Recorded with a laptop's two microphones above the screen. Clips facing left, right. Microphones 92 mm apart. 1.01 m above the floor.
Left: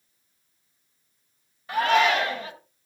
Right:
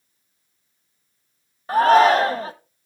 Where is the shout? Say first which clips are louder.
Right 7 dB; 35° right (ahead or behind), 0.8 m.